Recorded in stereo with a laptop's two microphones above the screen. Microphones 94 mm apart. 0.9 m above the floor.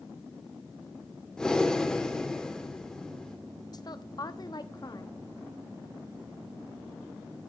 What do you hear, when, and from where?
1.4 s breathing: 5° left (ahead or behind), 3 m
3.7 s a woman speaking: 45° left (ahead or behind), 1.0 m